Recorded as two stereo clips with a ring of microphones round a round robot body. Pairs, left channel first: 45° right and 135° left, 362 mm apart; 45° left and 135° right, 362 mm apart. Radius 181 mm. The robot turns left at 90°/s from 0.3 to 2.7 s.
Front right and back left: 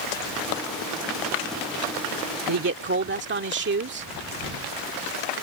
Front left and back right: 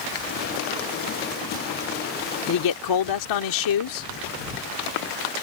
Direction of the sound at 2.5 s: 95° left.